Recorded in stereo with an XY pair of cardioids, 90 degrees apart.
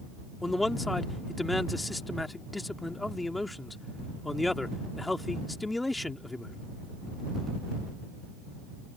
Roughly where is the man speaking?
Ahead.